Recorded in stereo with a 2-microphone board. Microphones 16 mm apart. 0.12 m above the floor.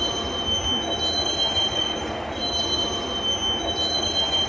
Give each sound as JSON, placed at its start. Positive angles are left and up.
{"t": 0.0, "sound": "a vehicle", "side_deg": 5}